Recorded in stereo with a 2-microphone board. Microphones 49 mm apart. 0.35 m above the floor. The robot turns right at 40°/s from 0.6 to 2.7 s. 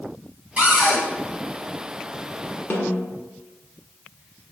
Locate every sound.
0.6 s a cupboard door: 25° right (ahead or behind), 1.8 m; by 1.0 s 10° right (ahead or behind), 1.8 m
2.7 s a snare drum: 50° left (ahead or behind), 1.0 m